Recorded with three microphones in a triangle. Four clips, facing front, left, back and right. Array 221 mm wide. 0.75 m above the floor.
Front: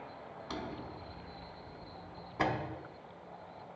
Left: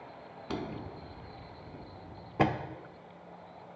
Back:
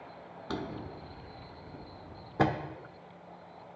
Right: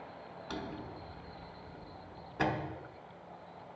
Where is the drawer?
135° left, 0.6 m.